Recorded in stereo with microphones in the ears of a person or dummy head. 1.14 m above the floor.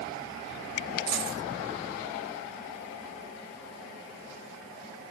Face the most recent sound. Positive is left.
turn(degrees=-65)  # may be behind; listen again after turning